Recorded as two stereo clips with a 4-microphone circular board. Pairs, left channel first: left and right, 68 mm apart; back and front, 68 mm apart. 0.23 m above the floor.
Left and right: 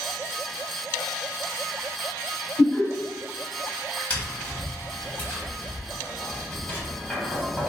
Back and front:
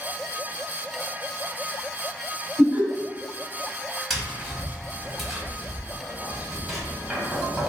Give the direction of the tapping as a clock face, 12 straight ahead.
9 o'clock.